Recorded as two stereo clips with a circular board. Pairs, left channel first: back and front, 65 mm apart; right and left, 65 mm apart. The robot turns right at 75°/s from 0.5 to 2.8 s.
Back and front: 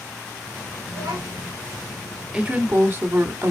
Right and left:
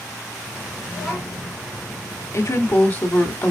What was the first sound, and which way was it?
A child speaking, 20° right.